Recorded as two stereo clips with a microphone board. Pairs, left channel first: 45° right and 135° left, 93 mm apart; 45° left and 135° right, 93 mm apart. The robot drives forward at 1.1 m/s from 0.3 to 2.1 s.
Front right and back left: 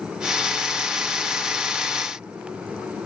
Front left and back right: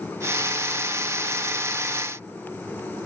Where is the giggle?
I don't hear a giggle.